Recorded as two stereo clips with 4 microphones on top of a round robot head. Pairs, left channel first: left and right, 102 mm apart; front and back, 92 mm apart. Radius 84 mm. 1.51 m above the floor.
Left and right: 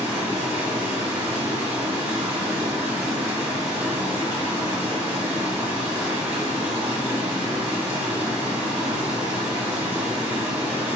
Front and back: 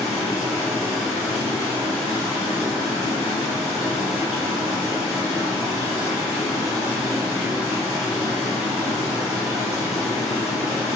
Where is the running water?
100° right, 1.0 m.